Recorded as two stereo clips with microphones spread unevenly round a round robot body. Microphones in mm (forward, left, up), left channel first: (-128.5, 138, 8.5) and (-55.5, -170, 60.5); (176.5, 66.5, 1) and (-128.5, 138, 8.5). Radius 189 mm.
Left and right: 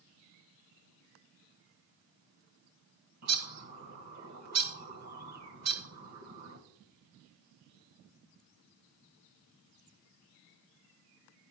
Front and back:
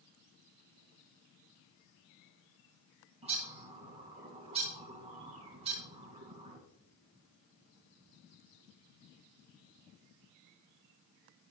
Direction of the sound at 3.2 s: 120° right.